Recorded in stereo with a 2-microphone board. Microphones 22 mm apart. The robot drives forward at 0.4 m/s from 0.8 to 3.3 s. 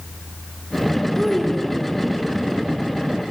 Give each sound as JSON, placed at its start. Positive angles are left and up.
{"t": 1.1, "sound": "a child speaking", "side_deg": 20, "distance_m": 0.7}